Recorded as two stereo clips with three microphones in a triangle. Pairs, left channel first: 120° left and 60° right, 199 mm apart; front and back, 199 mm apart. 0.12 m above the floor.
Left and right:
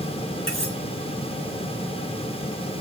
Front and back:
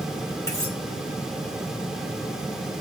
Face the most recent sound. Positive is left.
turn(degrees=-75)